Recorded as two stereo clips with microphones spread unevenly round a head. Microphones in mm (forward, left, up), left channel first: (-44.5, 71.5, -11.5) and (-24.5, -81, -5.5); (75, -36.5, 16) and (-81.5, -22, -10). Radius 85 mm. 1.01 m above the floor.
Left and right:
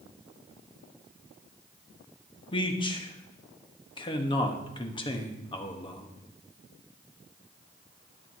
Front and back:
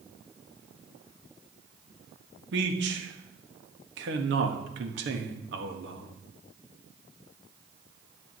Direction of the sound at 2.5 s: 160° left.